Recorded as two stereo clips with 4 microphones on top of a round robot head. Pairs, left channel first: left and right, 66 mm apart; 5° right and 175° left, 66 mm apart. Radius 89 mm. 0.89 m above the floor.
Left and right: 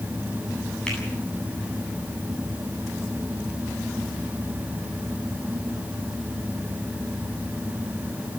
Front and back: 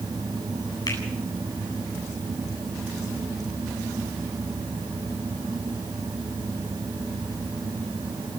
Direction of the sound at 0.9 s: 15° left.